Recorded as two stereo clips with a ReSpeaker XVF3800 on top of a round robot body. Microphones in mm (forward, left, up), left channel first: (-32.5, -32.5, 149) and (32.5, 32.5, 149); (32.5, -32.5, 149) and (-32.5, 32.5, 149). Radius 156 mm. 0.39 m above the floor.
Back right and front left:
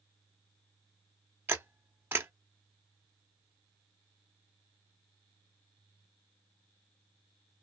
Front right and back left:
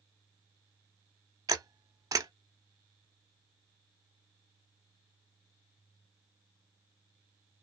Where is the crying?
I don't hear crying.